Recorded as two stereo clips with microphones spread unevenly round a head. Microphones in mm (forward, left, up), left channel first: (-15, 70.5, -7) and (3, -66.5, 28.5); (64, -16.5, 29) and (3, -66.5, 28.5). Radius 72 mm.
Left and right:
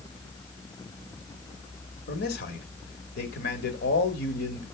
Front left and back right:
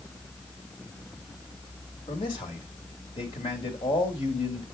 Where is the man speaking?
90° left, 2 m.